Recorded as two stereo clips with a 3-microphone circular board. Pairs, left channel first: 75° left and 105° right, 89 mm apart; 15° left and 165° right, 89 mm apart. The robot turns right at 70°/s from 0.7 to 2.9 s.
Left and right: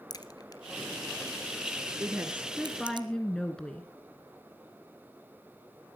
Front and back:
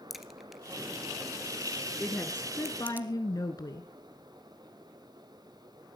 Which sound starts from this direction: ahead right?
A woman speaking, at 2.0 s.